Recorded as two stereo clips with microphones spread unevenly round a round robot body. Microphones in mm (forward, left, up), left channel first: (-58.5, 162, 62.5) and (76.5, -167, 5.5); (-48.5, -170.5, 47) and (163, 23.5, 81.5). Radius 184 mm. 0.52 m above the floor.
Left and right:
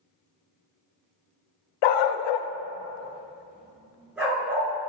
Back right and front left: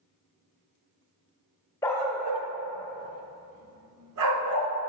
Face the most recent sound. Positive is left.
turn(degrees=20)